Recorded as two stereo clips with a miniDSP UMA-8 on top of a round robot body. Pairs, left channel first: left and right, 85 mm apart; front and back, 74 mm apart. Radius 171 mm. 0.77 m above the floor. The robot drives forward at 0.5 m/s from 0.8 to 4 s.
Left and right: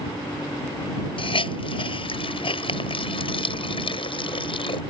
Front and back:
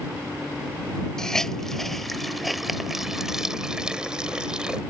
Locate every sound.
1.2 s a hiss: 85° left; by 4.8 s 100° left